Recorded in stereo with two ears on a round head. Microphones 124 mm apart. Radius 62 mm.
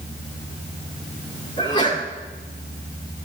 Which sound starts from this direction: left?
A sneeze, at 1.6 s.